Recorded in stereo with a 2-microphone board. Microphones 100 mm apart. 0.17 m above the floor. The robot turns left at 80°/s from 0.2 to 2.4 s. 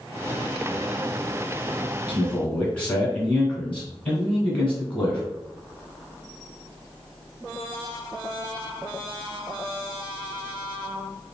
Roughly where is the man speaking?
Left.